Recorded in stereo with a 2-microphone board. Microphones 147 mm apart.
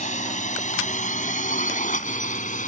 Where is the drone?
55° left (ahead or behind); by 2.7 s 60° left (ahead or behind).